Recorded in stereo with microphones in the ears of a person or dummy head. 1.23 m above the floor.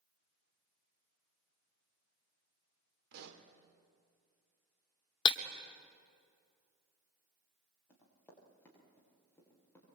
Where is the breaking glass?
25° left (ahead or behind), 1.5 m.